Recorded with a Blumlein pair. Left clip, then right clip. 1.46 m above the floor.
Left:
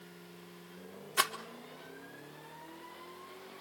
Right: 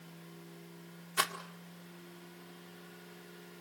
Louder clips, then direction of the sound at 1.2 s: Left 2 dB; 5° left.